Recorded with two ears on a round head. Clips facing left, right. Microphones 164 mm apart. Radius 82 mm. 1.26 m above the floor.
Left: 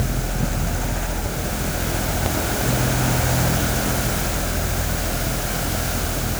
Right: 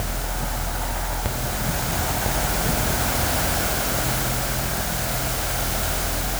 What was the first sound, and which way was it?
Only background noise.